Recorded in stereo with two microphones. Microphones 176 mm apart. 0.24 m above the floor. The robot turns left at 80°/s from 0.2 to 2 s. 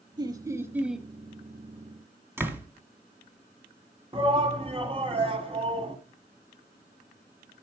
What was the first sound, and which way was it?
Laughter, 25° right (ahead or behind).